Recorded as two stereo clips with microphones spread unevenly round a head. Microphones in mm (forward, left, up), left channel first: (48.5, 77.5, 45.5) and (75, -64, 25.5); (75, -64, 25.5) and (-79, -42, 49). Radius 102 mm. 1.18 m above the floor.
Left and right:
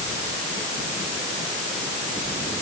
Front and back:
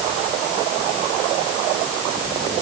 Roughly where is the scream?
I don't hear a scream.